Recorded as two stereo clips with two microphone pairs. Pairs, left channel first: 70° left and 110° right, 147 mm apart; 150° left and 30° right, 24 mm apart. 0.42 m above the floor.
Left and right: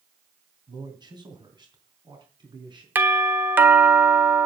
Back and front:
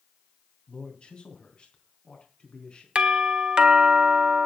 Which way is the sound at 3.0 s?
40° right.